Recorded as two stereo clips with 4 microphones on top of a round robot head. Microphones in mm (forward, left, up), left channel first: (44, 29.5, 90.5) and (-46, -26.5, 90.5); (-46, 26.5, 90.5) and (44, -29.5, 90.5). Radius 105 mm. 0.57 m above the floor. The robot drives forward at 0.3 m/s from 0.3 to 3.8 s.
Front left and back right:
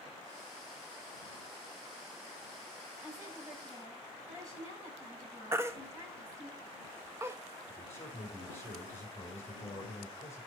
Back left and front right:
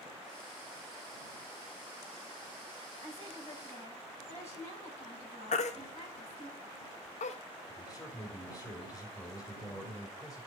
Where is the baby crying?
145° left, 0.6 m.